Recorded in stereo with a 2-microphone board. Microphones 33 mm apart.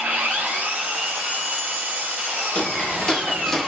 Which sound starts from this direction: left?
Footsteps, at 2.5 s.